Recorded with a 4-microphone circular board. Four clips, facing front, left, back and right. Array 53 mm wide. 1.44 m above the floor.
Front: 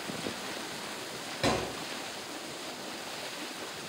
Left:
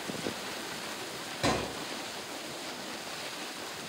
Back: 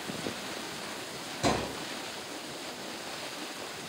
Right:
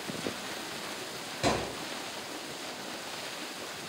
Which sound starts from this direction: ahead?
A thud, at 1.4 s.